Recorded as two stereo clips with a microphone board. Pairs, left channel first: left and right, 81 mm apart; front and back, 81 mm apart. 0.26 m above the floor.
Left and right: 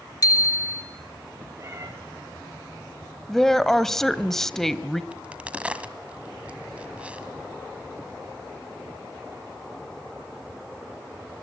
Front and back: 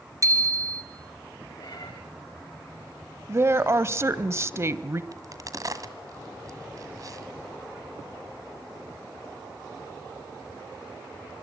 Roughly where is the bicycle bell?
Behind left.